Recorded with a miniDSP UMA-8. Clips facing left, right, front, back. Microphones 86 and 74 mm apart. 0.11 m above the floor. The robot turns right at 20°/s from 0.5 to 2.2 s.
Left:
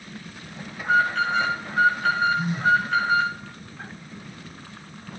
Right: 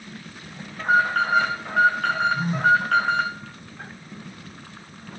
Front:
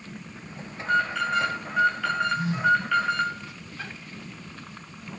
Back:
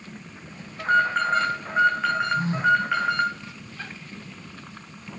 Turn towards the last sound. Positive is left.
turn(degrees=-135)